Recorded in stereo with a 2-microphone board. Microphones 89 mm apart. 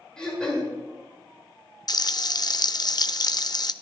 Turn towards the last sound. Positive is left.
turn(degrees=50)  # may be behind; listen again after turning